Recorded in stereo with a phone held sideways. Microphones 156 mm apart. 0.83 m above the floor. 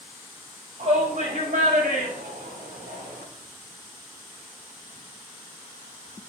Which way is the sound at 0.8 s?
45° right (ahead or behind).